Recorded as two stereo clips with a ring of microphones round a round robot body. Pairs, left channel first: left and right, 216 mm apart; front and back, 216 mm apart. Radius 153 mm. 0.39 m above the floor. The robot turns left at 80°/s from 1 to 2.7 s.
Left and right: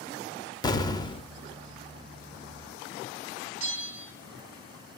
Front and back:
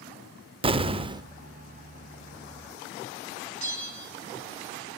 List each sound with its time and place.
0.6 s an explosion: 145° left, 0.7 m; by 1.3 s 120° left, 0.7 m
3.6 s a bell: 115° right, 3 m